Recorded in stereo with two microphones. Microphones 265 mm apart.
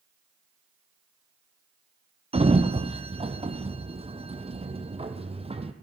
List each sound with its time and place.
2.3 s a sliding door: 20° right (ahead or behind), 1.5 m